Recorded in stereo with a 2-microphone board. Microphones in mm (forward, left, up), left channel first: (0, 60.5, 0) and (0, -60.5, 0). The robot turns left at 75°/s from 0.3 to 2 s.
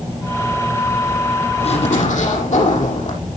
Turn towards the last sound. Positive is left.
turn(degrees=85)